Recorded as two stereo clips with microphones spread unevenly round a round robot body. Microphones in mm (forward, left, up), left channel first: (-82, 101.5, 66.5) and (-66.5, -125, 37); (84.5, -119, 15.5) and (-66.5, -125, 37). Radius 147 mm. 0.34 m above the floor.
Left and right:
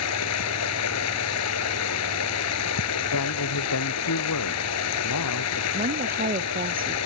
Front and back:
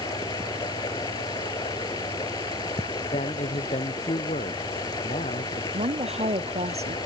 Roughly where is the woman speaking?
Behind right.